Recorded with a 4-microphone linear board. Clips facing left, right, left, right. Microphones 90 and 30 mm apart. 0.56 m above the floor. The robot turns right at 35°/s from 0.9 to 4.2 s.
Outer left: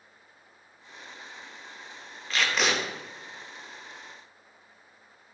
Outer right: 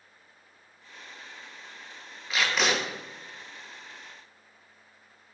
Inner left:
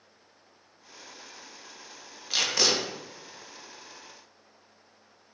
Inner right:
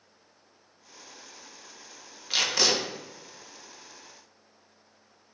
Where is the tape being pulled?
10° right (ahead or behind), 0.7 m; by 2.8 s 5° left (ahead or behind), 0.7 m.